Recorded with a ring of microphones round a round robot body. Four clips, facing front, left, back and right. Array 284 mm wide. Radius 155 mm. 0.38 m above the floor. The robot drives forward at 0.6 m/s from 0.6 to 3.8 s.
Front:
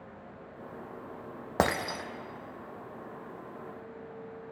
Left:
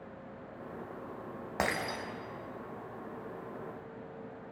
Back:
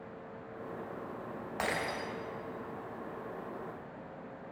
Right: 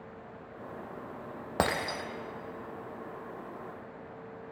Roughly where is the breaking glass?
Ahead right.